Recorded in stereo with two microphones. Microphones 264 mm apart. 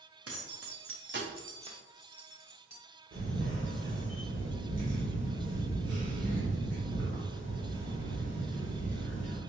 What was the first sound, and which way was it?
Keys jangling, 65° right (ahead or behind).